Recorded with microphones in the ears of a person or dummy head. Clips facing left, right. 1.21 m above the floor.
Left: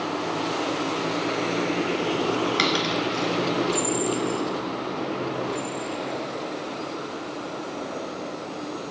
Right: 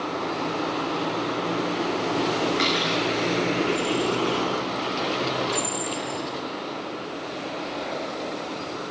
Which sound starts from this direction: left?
A dropped coin, at 2.6 s.